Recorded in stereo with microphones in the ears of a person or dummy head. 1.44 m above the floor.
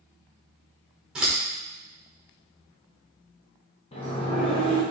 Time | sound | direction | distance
1.1 | scissors | centre (ahead or behind) | 1.3 m
3.9 | a sliding door | 30° left (ahead or behind) | 0.8 m